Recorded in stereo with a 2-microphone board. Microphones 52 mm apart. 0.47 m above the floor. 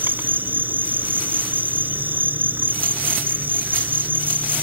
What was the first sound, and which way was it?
An insect, 40° right (ahead or behind).